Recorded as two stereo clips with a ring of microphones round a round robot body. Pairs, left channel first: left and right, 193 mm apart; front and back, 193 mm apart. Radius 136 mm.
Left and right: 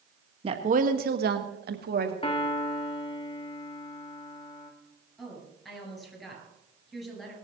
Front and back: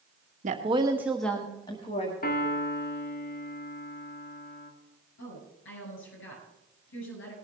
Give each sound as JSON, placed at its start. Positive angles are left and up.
{"t": 0.4, "sound": "a woman speaking", "azimuth_deg": -145, "distance_m": 1.1}
{"t": 2.2, "sound": "a piano", "azimuth_deg": 30, "distance_m": 2.0}
{"t": 5.2, "sound": "a woman speaking", "azimuth_deg": 0, "distance_m": 8.0}